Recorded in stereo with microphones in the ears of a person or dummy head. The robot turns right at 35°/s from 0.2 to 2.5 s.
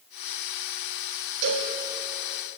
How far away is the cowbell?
About 4 m.